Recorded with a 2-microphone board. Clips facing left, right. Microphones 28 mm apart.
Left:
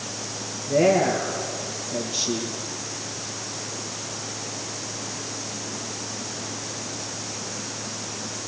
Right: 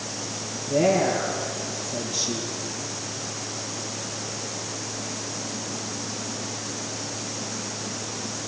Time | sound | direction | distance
0.7 | a woman speaking | 35° left (ahead or behind) | 5 m